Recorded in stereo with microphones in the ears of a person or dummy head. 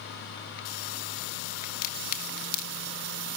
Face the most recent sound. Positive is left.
turn(degrees=55)  # may be behind; listen again after turning